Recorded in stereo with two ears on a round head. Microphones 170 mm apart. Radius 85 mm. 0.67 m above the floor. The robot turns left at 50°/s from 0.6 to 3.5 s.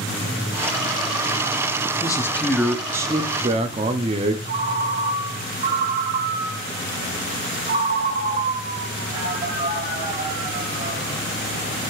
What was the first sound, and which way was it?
A man speaking, 30° left.